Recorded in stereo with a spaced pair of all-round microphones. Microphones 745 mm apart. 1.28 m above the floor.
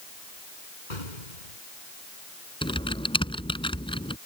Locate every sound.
0.9 s an explosion: 80° left
2.6 s typing on a keyboard: 5° left (ahead or behind)